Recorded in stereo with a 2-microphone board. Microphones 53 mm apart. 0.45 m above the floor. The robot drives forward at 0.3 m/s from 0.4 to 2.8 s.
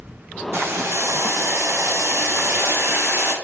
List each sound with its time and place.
0.5 s boiling: 55° right (ahead or behind), 0.7 m